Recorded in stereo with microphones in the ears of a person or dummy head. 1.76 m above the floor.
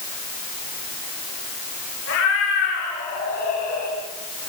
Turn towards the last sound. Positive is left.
turn(degrees=60)  # may be behind; listen again after turning